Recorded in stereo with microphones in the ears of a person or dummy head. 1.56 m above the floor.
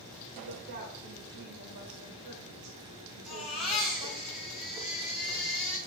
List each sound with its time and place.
0.3 s a woman speaking: 50° right (ahead or behind), 1.6 m
3.3 s a baby crying: centre (ahead or behind), 1.8 m